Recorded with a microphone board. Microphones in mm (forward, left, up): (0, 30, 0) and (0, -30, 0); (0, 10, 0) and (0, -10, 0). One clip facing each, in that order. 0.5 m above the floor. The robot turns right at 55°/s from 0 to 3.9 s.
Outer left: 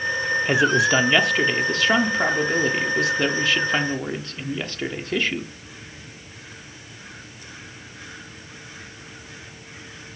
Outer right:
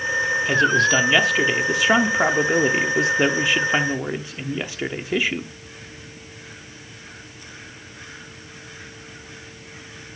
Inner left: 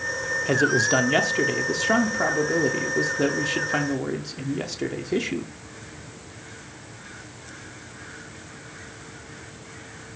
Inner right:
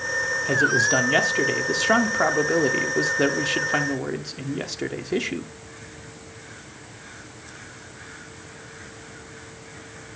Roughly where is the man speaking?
Centre.